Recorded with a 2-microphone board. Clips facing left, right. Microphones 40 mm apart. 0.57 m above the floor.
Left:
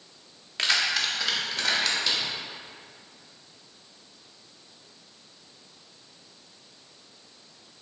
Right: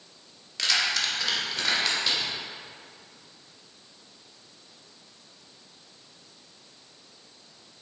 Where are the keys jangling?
30° left (ahead or behind), 0.9 m; by 2.2 s 10° right (ahead or behind), 1.7 m.